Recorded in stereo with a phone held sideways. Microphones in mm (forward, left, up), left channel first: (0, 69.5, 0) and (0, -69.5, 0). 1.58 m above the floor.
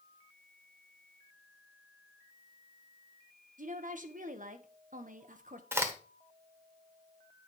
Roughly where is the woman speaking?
Right.